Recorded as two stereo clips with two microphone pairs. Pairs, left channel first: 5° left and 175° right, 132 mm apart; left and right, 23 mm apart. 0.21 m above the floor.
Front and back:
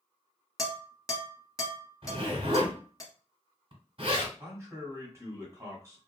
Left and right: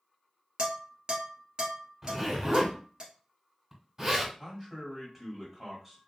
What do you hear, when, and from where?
0.6 s dishes clattering: 50° right, 1.2 m
2.0 s a zipper: 155° right, 1.3 m
4.4 s a man speaking: 160° right, 1.4 m